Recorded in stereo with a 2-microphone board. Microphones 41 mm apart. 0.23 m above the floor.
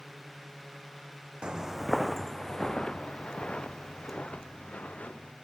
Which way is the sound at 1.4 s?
20° right (ahead or behind).